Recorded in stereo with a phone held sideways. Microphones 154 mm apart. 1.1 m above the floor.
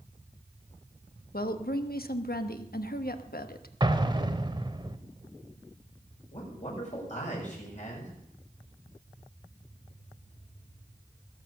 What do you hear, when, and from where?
1.3 s a woman speaking: 80° left, 1.1 m
3.8 s an explosion: 30° right (ahead or behind), 0.9 m
6.3 s a man speaking: 50° left (ahead or behind), 6.5 m